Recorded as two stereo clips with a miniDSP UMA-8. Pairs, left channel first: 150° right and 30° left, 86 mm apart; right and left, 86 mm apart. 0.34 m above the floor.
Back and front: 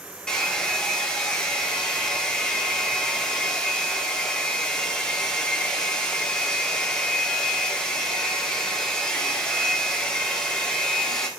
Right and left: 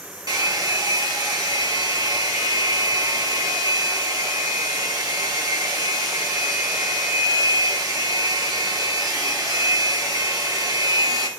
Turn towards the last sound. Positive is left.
turn(degrees=130)